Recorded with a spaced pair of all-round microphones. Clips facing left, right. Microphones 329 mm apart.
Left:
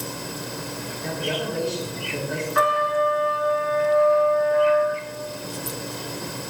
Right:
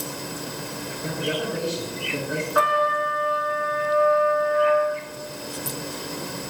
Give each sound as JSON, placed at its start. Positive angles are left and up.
{"t": 1.0, "sound": "a man speaking", "side_deg": -10, "distance_m": 8.5}
{"t": 2.5, "sound": "a trumpet", "side_deg": 35, "distance_m": 5.5}